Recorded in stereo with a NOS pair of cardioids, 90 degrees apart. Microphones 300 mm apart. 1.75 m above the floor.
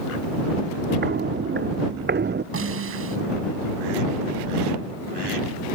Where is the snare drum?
45° right.